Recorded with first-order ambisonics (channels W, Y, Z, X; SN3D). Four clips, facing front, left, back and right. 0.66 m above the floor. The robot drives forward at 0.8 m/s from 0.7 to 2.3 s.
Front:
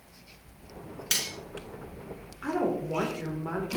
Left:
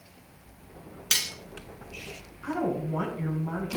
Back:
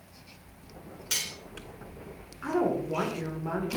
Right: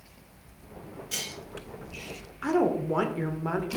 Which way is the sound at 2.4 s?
85° right.